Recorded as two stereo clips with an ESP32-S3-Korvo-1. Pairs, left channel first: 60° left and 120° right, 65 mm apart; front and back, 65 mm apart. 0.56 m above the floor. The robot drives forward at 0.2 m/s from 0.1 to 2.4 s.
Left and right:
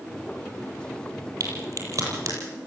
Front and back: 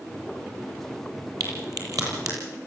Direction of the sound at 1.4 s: 155° right.